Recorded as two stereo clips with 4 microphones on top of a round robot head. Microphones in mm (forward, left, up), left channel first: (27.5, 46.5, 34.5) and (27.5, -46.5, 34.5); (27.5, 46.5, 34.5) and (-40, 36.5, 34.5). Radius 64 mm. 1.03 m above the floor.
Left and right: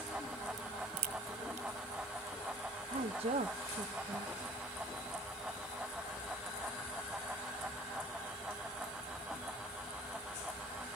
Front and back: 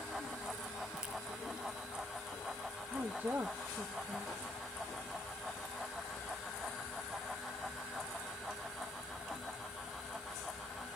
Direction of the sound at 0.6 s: 90° right.